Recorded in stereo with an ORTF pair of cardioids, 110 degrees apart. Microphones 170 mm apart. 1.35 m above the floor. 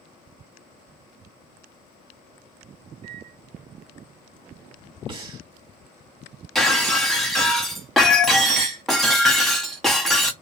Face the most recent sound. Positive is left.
turn(degrees=0)